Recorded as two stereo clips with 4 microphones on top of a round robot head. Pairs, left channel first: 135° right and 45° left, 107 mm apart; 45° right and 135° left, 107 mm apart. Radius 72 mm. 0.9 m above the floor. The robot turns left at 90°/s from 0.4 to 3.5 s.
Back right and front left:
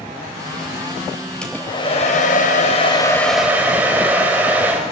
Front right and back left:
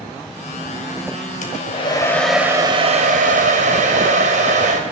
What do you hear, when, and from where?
1.4 s a hair dryer: 55° right, 4 m; by 4.8 s 120° left, 4 m